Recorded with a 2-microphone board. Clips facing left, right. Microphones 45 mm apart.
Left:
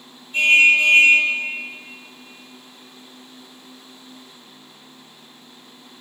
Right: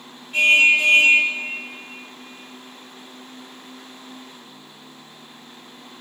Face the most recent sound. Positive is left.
turn(degrees=-80)